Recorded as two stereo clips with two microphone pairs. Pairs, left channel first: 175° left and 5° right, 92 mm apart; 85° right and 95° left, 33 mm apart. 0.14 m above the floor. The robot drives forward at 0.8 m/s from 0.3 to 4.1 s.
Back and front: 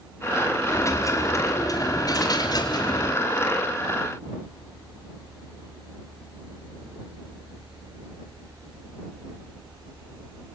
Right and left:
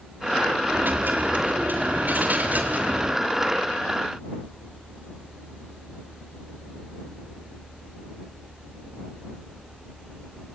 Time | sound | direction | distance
0.7 | a dropped coin | 115° left | 4.5 m